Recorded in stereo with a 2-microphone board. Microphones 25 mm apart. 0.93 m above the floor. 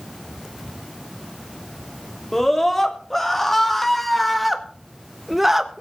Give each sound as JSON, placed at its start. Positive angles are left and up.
{"t": 2.3, "sound": "a scream", "side_deg": 15, "distance_m": 2.5}